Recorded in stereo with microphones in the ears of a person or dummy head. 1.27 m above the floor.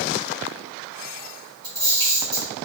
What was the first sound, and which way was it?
A camera shutter, 20° right (ahead or behind).